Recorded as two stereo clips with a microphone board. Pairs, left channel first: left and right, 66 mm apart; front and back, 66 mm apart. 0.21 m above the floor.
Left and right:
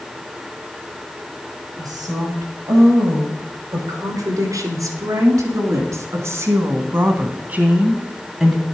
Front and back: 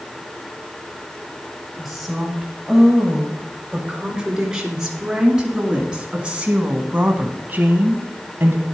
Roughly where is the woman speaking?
Right.